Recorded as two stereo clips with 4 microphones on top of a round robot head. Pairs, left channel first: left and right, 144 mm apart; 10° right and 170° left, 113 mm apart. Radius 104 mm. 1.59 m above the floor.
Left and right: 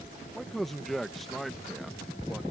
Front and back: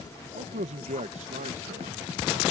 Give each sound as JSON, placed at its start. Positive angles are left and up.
{"t": 0.3, "sound": "a man speaking", "azimuth_deg": 175}